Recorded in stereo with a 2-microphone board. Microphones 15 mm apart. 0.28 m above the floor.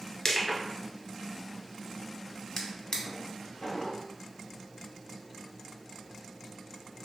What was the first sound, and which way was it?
Crushing, 40° left (ahead or behind).